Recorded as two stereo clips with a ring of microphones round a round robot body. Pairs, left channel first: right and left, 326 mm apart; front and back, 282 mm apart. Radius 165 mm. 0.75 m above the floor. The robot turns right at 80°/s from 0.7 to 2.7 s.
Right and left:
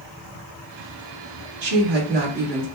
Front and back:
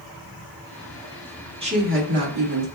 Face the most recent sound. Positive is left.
turn(degrees=-165)